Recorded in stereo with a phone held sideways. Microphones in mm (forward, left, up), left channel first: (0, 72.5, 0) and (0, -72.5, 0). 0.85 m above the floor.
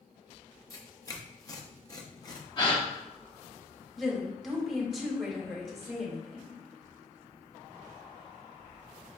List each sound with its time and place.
0.7 s tearing paper: 25° left (ahead or behind), 0.6 m
2.6 s a gasp: 35° left (ahead or behind), 1.1 m
4.0 s a woman speaking: centre (ahead or behind), 1.1 m